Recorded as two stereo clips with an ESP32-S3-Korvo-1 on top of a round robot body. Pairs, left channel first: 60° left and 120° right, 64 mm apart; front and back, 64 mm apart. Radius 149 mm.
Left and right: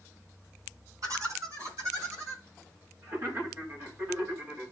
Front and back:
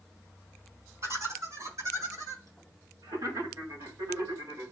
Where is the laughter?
145° right, 5.5 m; by 4.7 s straight behind, 6 m.